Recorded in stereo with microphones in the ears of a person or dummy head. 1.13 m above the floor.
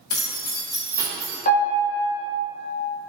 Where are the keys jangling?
70° left (ahead or behind), 1.1 m; by 1.4 s 40° right (ahead or behind), 1.0 m.